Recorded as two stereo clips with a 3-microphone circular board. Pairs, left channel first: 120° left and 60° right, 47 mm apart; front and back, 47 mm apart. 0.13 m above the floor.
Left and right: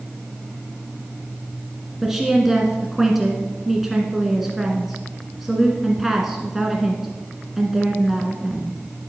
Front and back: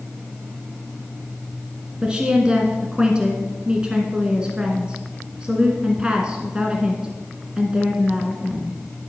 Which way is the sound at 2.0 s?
140° right.